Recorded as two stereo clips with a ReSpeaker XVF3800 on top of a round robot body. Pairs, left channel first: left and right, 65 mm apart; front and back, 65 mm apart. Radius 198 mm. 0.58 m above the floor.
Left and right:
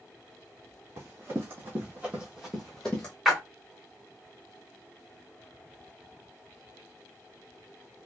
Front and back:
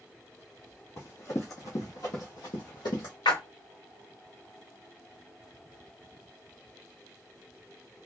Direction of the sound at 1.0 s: 40° right.